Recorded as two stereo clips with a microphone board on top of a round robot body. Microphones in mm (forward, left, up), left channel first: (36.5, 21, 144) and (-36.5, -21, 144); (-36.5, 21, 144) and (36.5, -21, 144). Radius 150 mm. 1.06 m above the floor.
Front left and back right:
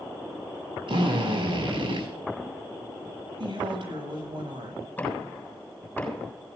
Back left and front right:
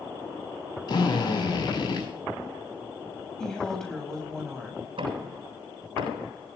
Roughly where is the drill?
Behind.